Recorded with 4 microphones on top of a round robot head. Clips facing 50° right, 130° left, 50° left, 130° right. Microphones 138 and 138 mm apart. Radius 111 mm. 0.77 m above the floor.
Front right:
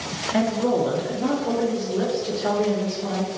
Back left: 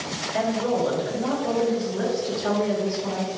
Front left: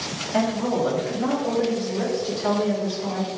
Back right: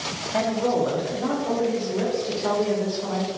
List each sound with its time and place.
0.3 s a woman speaking: 35° right, 1.2 m; by 3.3 s 40° right, 3 m